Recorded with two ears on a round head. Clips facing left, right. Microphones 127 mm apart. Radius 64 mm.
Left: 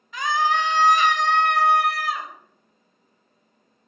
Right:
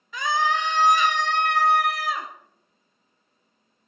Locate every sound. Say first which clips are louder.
0.1 s a scream: left 2 dB; 85° right, 1.3 m; by 2.3 s 80° right, 2.5 m